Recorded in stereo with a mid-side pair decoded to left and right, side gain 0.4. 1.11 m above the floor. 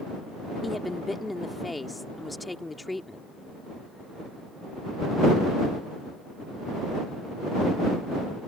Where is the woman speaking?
15° left.